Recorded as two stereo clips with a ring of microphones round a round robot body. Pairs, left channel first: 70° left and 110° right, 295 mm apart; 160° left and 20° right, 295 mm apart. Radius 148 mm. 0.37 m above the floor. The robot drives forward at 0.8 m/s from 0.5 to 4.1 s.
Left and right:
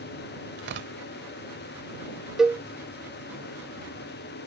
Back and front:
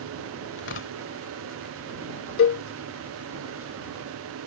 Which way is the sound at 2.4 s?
160° left.